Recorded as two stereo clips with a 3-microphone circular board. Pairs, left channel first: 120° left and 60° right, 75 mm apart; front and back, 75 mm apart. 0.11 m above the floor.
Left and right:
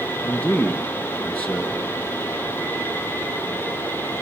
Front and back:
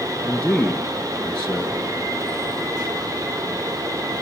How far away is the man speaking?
About 1.5 m.